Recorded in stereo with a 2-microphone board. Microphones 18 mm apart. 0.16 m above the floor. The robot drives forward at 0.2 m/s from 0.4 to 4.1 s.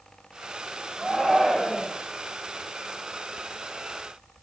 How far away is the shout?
About 6.5 m.